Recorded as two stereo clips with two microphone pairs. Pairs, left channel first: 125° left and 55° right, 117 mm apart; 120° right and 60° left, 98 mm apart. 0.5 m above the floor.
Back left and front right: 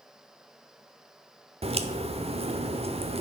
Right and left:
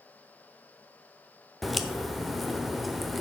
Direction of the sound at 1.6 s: 35° right.